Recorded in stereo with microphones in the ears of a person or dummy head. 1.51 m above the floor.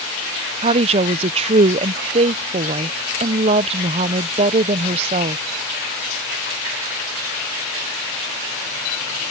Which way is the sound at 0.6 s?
40° right (ahead or behind).